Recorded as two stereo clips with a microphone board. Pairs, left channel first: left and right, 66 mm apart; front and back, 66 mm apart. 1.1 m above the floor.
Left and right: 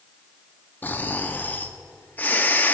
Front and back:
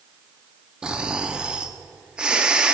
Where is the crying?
No crying in this recording.